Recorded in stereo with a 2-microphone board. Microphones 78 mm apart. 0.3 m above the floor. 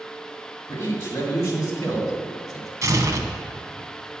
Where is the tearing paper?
40° right (ahead or behind), 0.8 m.